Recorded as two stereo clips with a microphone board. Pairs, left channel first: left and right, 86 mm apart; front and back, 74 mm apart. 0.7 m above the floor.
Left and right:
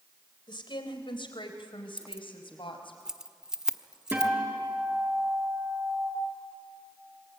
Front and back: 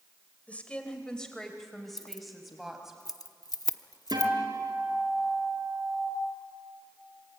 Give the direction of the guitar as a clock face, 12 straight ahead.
5 o'clock.